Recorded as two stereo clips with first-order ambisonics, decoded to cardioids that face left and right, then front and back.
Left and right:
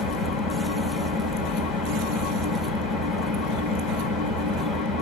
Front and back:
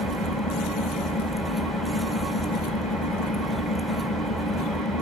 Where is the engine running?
110° left, 2.5 m.